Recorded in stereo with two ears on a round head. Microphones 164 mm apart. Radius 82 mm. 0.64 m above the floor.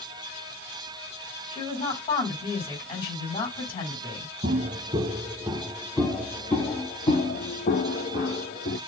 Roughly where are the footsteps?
Right.